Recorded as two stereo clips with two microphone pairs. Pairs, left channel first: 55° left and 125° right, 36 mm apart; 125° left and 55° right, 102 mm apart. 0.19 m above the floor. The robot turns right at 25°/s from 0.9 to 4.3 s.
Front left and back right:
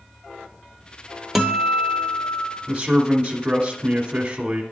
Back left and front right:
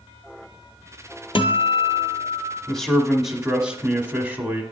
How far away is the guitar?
About 0.8 m.